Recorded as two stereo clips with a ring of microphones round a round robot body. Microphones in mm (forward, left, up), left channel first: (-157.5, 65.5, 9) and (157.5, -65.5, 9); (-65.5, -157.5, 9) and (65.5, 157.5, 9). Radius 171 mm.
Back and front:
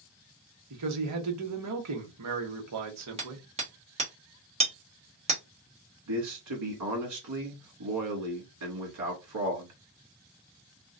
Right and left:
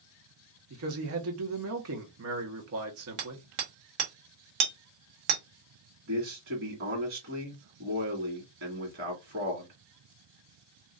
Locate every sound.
0.7 s a man speaking: 20° left, 1.3 m
3.2 s hammering: 50° left, 1.4 m
6.1 s a man speaking: 15° left, 2 m